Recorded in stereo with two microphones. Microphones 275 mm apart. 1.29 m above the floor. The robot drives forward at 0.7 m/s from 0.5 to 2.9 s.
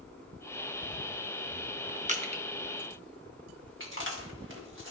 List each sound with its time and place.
2.1 s crushing: 25° right (ahead or behind), 0.9 m; by 2.4 s 20° right (ahead or behind), 1.1 m
3.8 s chewing: 45° right (ahead or behind), 1.7 m